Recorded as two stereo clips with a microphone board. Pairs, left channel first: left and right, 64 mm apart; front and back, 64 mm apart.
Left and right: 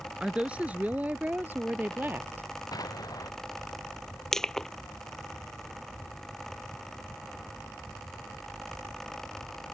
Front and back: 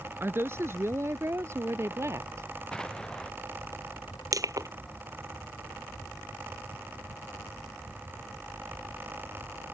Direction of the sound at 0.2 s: 155° right.